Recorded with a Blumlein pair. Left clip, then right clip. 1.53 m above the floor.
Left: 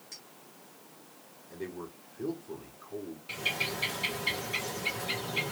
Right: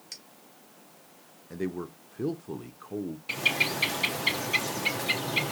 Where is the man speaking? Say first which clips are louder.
Right 6 dB; 30° right, 0.6 m.